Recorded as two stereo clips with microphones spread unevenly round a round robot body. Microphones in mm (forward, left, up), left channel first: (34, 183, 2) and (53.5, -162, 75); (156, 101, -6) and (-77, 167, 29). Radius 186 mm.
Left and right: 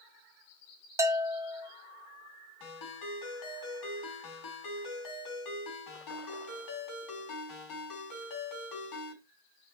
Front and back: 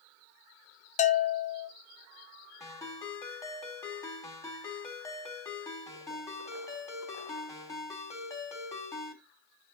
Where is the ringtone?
65° left, 4 m.